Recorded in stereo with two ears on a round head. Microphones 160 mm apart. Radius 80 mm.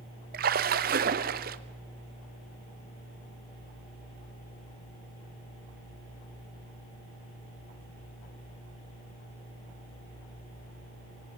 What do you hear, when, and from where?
0.3 s a splash: 55° right (ahead or behind), 0.8 m